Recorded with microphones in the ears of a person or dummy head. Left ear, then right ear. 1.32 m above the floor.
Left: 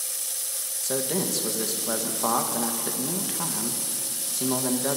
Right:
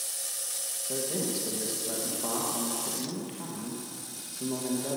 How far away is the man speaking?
About 1.2 m.